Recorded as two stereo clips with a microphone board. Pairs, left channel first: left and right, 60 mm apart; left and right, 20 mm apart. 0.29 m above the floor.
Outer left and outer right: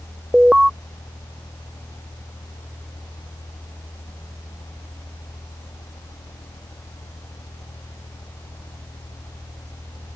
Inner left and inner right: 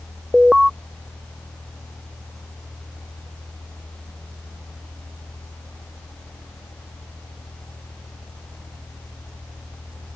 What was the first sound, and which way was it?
An alarm, 15° right (ahead or behind).